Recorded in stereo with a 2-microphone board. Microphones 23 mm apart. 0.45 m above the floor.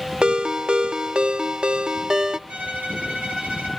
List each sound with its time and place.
0.2 s a ringtone: 40° right (ahead or behind), 0.9 m
2.5 s a violin: 75° right (ahead or behind), 9.5 m